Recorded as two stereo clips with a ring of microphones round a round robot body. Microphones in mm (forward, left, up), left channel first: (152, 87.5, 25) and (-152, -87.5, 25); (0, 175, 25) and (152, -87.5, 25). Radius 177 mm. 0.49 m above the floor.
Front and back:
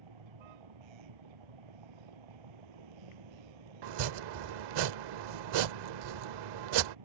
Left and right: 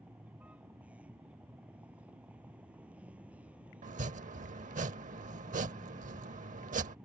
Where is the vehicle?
145° right.